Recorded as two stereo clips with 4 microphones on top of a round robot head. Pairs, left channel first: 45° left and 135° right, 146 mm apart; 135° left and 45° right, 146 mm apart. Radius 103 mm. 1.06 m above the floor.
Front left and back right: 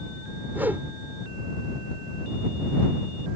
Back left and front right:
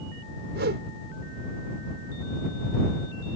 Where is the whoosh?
55° right.